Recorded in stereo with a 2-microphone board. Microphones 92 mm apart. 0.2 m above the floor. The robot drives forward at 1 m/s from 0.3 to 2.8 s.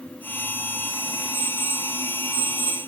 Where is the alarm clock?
35° left (ahead or behind), 7.5 m; by 2.9 s 30° left (ahead or behind), 9 m.